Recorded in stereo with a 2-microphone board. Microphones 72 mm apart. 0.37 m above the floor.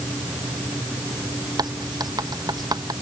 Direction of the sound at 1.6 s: 65° right (ahead or behind).